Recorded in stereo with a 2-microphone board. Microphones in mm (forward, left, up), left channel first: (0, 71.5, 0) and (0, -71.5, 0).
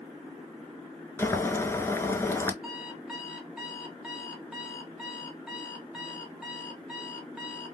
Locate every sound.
1.2 s boiling: 20° left (ahead or behind), 0.6 m
2.6 s an alarm clock: 5° right (ahead or behind), 0.8 m